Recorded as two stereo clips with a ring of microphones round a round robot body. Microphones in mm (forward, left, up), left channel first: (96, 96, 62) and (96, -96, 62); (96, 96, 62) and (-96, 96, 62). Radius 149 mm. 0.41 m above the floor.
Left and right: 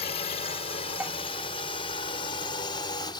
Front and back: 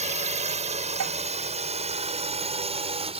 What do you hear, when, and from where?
0.0 s a drone: 140° left; by 3.2 s 145° left
1.0 s dishes clattering: 175° right